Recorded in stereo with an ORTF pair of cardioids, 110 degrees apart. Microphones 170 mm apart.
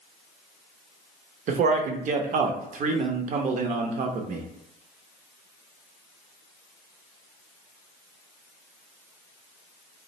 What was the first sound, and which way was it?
A man speaking, 50° right.